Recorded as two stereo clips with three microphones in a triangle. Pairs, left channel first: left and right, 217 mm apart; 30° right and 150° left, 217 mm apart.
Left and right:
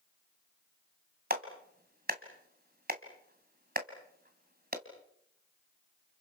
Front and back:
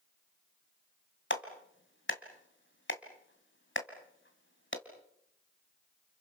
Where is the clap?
50° right, 2 m.